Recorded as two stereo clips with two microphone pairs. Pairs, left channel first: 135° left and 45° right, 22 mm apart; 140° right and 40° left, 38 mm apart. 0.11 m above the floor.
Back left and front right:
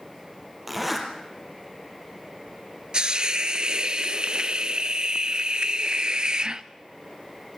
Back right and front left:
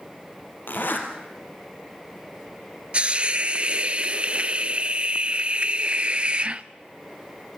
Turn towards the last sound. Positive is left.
turn(degrees=-5)